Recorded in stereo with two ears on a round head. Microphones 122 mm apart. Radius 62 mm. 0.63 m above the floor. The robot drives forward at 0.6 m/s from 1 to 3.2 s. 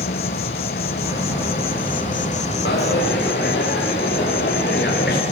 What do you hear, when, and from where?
0.0 s an insect: 75° left (ahead or behind), 1.1 m; by 5.3 s 45° left (ahead or behind), 1.5 m
2.6 s a dropped coin: 85° left, 10 m